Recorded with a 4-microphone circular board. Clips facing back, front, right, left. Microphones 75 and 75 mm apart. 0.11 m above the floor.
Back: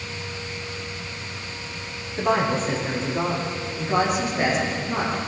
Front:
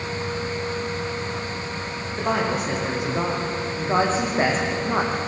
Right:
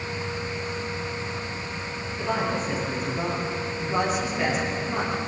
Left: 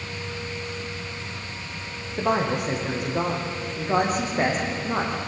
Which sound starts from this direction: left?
A woman speaking, at 2.2 s.